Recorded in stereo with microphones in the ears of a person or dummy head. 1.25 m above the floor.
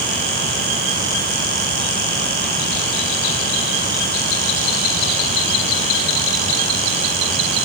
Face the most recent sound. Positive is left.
No sound to turn to.